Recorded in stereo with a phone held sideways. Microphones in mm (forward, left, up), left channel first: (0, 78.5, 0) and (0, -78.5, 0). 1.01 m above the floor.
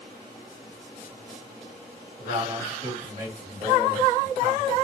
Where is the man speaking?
50° right (ahead or behind), 2.0 m.